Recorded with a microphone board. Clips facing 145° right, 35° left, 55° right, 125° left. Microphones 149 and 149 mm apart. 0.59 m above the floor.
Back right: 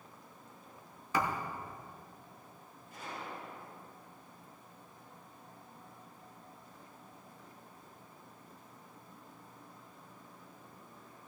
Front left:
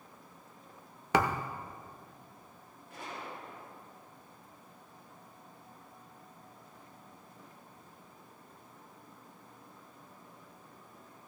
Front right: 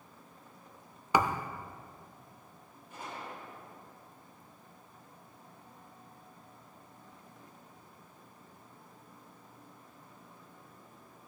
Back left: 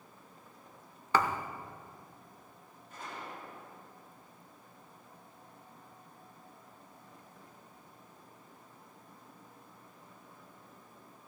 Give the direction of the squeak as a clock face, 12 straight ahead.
I don't hear a squeak.